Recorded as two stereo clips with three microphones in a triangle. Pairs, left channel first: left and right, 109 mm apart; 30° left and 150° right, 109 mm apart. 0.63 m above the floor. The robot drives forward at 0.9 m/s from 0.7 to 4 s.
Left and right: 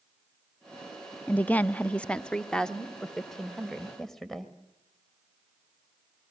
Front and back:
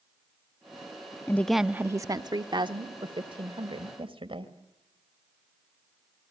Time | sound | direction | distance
1.3 | a woman speaking | 40° left | 0.6 m